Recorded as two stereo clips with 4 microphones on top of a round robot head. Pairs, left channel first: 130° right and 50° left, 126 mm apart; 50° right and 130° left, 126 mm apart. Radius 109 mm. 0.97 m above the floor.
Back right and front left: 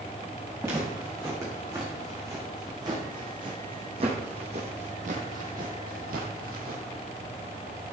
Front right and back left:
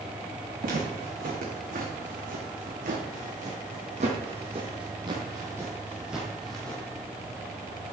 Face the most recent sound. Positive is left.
turn(degrees=35)